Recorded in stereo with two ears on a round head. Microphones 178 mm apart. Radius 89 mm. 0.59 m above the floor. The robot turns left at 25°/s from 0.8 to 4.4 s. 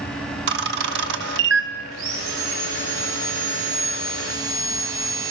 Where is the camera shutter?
55° right (ahead or behind), 0.8 m; by 1.7 s 60° right (ahead or behind), 0.8 m.